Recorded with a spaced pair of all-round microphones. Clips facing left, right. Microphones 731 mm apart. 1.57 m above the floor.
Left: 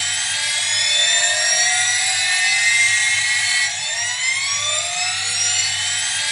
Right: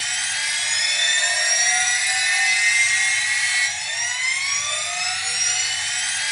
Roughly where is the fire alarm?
No fire alarm in this recording.